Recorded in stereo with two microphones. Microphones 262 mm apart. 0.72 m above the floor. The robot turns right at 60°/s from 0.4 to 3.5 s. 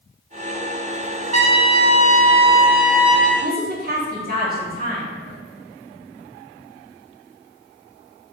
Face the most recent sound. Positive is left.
turn(degrees=-35)  # may be behind; listen again after turning